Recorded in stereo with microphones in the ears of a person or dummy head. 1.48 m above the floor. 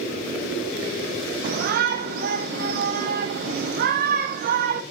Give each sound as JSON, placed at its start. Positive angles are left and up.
{"t": 1.4, "sound": "a shout", "side_deg": -55, "distance_m": 0.8}